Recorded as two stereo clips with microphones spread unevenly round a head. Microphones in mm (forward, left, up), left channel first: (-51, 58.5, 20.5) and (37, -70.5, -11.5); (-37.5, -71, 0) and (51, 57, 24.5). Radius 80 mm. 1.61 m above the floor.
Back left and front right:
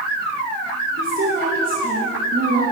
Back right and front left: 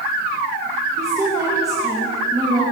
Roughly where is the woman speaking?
Ahead.